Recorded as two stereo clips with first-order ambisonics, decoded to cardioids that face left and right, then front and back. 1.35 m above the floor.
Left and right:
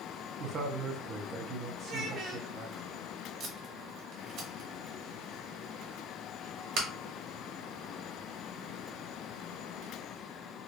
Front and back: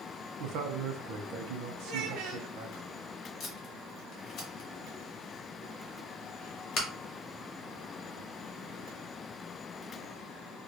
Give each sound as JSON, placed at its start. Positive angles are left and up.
{"t": 0.4, "sound": "a man speaking", "azimuth_deg": -150, "distance_m": 0.6}
{"t": 1.8, "sound": "a child speaking", "azimuth_deg": -150, "distance_m": 0.7}
{"t": 3.4, "sound": "tape being pulled", "azimuth_deg": -50, "distance_m": 1.0}